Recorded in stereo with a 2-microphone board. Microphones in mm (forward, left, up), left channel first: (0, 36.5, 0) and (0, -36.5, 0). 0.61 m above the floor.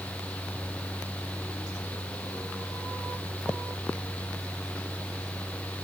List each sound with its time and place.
Only background noise.